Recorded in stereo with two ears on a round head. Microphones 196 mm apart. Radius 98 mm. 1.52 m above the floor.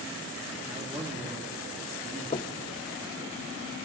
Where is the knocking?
30° left (ahead or behind), 0.5 m.